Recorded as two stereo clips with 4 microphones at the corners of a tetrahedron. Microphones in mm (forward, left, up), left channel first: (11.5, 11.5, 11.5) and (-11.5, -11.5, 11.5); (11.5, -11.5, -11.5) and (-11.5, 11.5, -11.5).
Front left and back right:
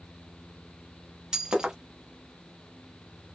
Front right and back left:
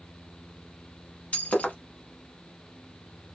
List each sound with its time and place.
1.3 s breaking glass: 70° right, 0.8 m